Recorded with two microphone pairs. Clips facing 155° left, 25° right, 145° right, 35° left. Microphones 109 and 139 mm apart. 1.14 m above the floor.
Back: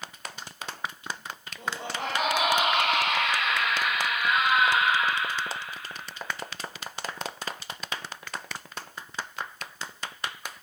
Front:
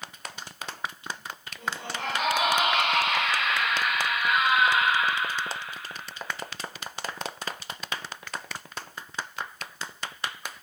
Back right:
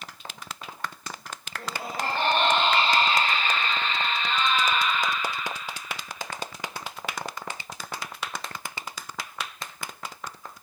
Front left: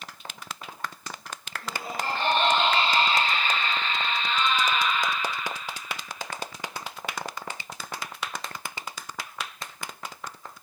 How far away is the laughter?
About 6 m.